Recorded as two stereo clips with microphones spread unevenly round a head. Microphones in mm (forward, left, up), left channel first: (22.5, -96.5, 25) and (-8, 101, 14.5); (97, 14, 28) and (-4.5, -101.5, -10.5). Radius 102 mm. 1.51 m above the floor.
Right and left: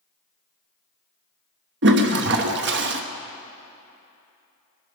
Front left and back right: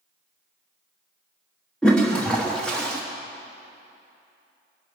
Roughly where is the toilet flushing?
Behind left.